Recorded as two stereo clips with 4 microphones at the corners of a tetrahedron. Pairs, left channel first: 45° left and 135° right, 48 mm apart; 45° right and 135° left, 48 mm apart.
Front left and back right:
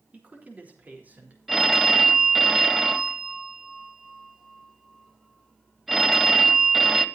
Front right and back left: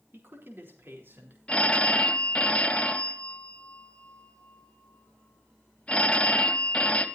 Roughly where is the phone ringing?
Ahead right.